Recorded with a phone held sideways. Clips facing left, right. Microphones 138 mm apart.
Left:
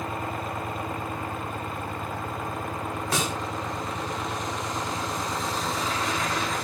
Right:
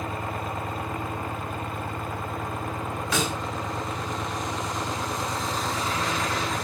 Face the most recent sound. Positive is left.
turn(degrees=40)  # may be behind; listen again after turning